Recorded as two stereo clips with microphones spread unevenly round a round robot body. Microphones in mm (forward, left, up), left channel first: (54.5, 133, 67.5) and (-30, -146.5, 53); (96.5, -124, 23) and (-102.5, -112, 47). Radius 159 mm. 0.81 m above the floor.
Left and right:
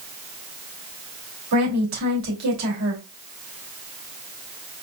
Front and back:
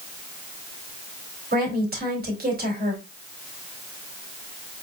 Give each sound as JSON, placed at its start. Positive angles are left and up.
{"t": 1.5, "sound": "a woman speaking", "azimuth_deg": -140, "distance_m": 3.0}